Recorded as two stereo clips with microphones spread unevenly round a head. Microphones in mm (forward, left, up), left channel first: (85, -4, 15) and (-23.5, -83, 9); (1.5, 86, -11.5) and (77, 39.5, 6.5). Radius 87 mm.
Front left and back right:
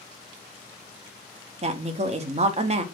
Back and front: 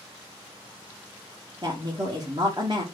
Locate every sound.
1.6 s a woman speaking: 100° right, 0.6 m